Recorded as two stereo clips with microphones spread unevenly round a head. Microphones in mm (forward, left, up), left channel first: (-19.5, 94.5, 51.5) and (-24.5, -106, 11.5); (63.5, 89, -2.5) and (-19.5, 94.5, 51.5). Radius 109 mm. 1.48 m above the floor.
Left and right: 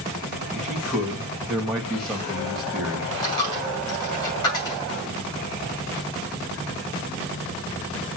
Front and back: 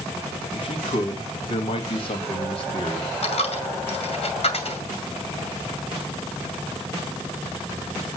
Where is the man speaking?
Straight ahead, 3 m.